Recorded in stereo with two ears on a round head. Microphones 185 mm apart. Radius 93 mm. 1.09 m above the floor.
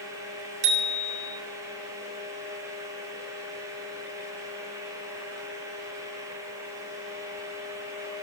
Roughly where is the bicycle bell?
Right.